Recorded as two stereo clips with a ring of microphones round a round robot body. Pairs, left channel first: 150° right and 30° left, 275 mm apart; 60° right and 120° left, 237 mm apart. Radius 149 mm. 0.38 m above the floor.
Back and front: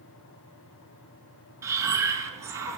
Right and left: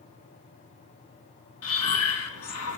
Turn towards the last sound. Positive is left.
turn(degrees=-50)